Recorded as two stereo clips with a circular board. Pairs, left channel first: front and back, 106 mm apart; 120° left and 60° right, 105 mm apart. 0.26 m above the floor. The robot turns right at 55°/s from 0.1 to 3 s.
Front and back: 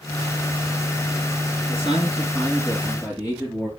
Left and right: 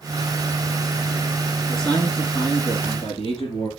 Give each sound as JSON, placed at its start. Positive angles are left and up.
{"t": 1.7, "sound": "a man speaking", "azimuth_deg": 30, "distance_m": 3.0}